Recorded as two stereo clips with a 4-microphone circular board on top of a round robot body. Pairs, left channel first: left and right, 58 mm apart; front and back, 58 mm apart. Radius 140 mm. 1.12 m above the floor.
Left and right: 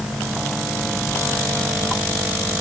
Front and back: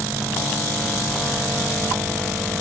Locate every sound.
Only background noise.